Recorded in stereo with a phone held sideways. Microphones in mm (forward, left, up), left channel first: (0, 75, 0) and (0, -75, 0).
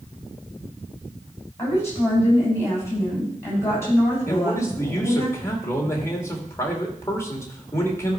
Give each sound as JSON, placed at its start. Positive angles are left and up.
{"t": 1.6, "sound": "a woman speaking", "side_deg": 20, "distance_m": 7.5}
{"t": 4.3, "sound": "a man speaking", "side_deg": 20, "distance_m": 2.5}